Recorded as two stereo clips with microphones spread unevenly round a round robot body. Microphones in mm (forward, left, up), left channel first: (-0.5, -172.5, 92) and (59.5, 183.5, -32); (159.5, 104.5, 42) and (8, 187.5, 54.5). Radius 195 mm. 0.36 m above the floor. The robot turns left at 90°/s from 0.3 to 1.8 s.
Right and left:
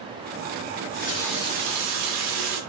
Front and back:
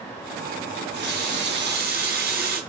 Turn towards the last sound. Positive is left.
turn(degrees=120)